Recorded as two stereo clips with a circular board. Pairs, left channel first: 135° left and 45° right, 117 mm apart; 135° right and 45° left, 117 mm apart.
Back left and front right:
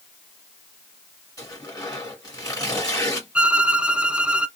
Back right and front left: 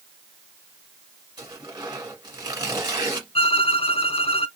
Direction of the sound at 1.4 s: 85° left.